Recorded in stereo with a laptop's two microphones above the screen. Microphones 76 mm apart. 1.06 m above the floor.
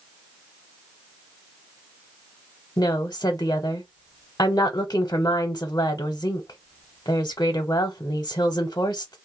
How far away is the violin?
No violin in this recording.